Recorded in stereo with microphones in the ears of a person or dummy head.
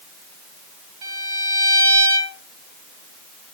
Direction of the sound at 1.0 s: 20° right (ahead or behind).